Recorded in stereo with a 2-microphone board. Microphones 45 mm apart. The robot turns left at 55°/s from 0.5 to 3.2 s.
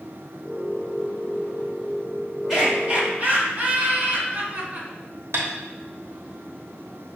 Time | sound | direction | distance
2.5 | laughter | straight ahead | 1.9 m
5.3 | tapping | 85° right | 1.0 m